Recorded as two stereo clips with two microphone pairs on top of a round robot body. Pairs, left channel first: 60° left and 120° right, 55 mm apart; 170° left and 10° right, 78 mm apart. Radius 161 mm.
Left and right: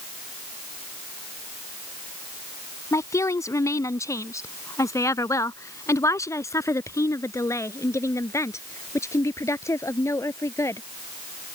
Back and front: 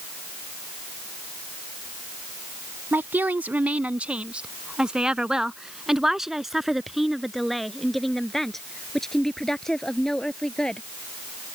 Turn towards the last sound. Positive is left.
turn(degrees=90)